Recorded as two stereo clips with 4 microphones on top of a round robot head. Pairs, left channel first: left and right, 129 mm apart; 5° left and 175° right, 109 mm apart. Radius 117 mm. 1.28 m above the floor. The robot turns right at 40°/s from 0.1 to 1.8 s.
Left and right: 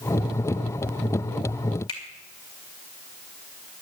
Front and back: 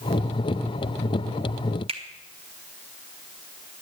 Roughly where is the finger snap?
Behind left.